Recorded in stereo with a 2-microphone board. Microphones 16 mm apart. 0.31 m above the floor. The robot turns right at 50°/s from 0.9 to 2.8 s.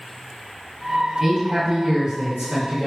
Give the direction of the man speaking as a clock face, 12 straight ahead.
6 o'clock.